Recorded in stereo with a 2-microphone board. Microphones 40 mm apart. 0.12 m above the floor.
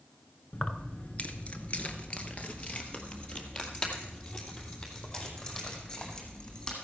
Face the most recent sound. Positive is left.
turn(degrees=20)  # may be behind; listen again after turning